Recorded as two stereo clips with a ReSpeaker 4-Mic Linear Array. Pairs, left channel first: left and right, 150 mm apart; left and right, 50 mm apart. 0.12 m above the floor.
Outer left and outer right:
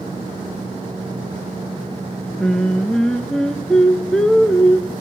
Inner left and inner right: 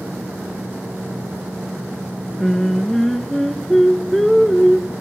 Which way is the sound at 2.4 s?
5° left (ahead or behind).